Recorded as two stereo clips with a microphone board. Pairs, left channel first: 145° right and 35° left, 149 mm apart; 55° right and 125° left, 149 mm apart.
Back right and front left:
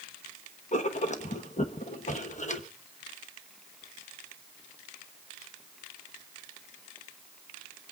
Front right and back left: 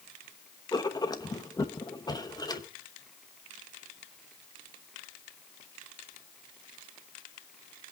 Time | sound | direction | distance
0.7 | writing | 115° right | 1.2 m